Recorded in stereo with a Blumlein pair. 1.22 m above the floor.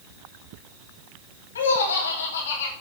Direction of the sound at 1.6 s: 65° left.